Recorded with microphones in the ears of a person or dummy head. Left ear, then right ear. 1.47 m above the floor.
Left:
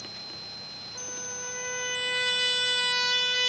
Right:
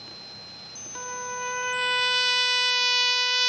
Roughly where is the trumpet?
Right.